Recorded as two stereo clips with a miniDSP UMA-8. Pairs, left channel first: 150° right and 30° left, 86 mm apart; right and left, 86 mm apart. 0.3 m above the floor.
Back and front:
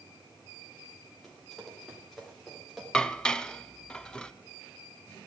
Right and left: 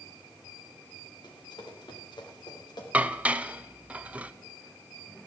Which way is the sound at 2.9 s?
140° left.